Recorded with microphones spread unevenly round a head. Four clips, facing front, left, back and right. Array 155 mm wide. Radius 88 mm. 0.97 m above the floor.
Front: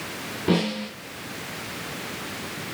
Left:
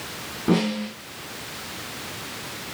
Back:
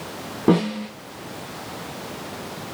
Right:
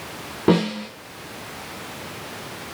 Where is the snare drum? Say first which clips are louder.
Right 3 dB, back 5 dB; 140° right, 9 m.